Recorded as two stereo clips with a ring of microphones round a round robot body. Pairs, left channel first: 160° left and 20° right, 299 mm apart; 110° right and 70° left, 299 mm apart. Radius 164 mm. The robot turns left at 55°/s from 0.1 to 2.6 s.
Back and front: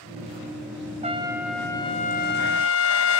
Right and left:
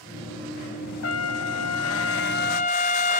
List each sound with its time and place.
1.0 s a trumpet: 85° right, 0.9 m; by 3.2 s 170° right, 0.9 m